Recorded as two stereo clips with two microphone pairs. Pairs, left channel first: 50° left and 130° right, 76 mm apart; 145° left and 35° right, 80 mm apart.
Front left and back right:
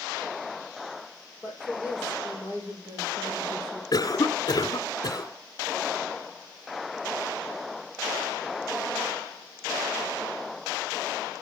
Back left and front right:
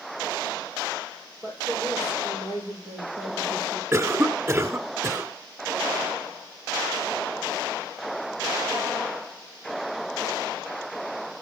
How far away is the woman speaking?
About 7 m.